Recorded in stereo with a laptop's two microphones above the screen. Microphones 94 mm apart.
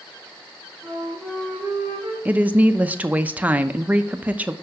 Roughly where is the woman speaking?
Centre.